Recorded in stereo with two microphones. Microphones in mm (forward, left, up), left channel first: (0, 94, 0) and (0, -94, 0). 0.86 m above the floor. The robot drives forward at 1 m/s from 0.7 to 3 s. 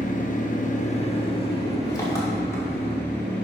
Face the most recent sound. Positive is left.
turn(degrees=10)  # may be behind; listen again after turning